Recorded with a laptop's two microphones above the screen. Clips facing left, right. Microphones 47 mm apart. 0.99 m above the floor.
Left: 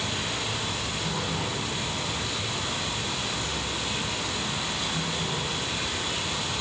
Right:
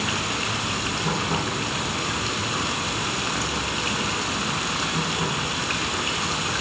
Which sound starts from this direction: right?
Running water, at 0.0 s.